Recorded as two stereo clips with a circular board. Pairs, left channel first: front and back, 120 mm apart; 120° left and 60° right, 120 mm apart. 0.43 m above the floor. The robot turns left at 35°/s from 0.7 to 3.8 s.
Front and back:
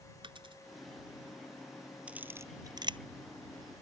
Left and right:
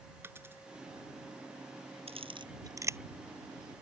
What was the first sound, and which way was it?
A dropped coin, 130° right.